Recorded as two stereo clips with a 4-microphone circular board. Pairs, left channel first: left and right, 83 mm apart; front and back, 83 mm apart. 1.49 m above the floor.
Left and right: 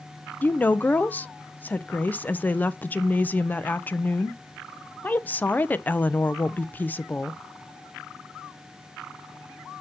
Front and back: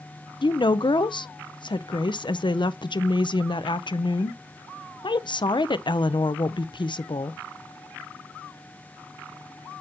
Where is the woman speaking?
20° left, 0.6 m.